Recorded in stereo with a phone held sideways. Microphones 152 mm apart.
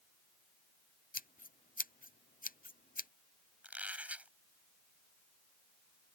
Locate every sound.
1.1 s scissors: 65° left (ahead or behind)
3.6 s a squeak: 10° right (ahead or behind)